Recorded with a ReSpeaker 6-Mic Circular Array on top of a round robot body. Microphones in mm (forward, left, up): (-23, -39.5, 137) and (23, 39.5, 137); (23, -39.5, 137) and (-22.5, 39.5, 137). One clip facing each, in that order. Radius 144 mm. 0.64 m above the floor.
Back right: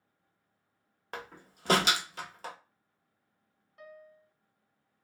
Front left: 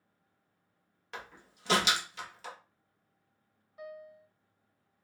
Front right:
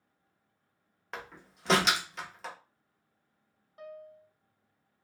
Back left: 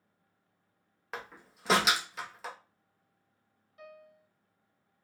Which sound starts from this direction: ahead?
A piano, at 3.8 s.